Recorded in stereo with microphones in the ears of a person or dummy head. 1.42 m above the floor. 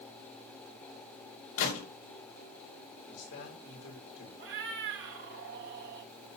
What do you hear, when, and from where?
1.6 s a gunshot: 65° left (ahead or behind), 4.5 m
3.1 s a woman speaking: 70° left (ahead or behind), 6 m
4.4 s a cat meowing: 50° right (ahead or behind), 1.3 m